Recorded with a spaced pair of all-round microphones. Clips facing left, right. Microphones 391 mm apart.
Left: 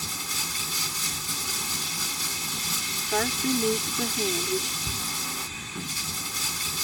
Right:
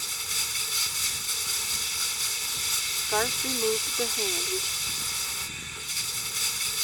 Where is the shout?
55° left (ahead or behind).